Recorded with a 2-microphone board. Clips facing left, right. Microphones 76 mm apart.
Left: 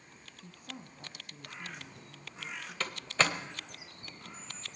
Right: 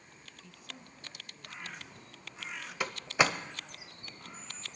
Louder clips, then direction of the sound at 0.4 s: Left 4 dB; 45° left (ahead or behind).